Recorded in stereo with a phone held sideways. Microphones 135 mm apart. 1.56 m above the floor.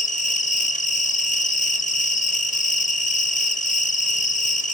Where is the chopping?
I don't hear chopping.